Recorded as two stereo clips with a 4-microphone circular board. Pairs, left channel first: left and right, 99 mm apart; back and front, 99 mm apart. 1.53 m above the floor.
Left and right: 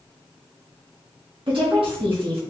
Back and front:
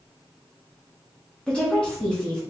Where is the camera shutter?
I don't hear a camera shutter.